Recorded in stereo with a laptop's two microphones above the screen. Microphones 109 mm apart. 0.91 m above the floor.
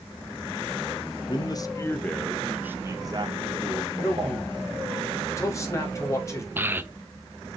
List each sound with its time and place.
1.3 s a man speaking: 45° left (ahead or behind), 0.9 m; by 5.0 s 70° right (ahead or behind), 1.7 m
4.0 s a man speaking: 30° left (ahead or behind), 4 m
6.6 s a child speaking: 20° right (ahead or behind), 0.6 m